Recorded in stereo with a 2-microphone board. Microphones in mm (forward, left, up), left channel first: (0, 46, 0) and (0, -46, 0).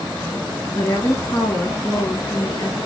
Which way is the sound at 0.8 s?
40° left (ahead or behind).